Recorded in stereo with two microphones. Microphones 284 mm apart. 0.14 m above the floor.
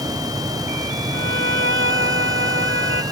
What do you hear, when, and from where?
1.1 s a violin: 45° right (ahead or behind)